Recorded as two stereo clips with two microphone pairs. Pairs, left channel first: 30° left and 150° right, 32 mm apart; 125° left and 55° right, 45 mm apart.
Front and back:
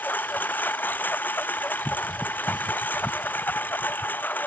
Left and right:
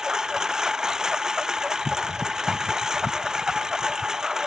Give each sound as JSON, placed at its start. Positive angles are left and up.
{"t": 0.0, "sound": "a lawn mower", "azimuth_deg": 20}